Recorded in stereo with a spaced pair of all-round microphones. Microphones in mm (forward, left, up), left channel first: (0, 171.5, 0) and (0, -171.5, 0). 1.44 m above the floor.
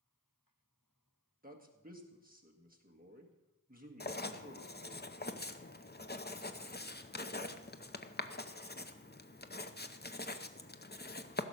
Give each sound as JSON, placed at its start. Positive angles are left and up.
{"t": 1.4, "sound": "a man speaking", "side_deg": -25, "distance_m": 1.7}
{"t": 4.0, "sound": "writing", "side_deg": 30, "distance_m": 0.6}